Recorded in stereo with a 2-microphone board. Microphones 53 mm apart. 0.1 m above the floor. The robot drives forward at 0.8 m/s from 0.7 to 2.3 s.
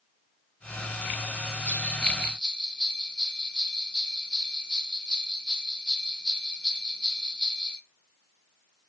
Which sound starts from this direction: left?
A bell, at 1.6 s.